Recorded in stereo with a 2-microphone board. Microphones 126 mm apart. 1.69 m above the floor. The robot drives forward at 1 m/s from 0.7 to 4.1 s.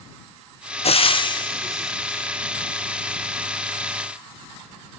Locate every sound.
0.8 s frying: 60° left (ahead or behind), 0.9 m; by 2.3 s 20° left (ahead or behind), 1.9 m